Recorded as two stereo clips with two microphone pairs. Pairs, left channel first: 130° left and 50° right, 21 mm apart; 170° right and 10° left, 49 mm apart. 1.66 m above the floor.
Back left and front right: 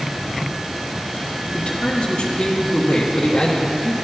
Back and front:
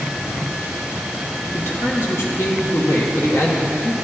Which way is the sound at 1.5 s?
160° left.